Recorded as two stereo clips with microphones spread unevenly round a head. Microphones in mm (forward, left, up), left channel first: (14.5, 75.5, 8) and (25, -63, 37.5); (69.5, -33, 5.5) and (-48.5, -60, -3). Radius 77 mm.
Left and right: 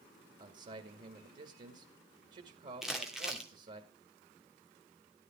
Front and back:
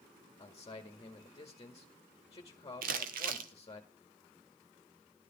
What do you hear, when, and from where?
0.4 s a man speaking: 45° right, 1.9 m
2.8 s crumpling: 170° right, 1.3 m